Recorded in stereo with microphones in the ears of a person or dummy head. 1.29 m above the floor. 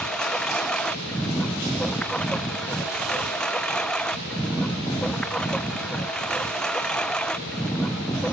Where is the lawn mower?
5° left (ahead or behind).